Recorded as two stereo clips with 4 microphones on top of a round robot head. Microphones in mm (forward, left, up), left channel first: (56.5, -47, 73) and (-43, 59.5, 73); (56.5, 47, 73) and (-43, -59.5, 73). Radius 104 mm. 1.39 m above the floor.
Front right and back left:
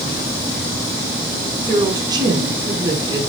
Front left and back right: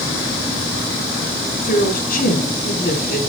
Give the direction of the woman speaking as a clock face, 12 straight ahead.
10 o'clock.